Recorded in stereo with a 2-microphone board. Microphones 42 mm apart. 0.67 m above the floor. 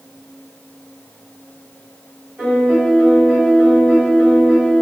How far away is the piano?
About 2.0 m.